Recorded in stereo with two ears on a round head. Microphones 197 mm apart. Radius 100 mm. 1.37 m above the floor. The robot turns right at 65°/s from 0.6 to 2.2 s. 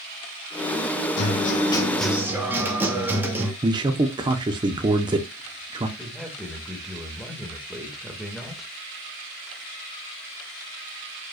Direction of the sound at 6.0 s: Centre (ahead or behind).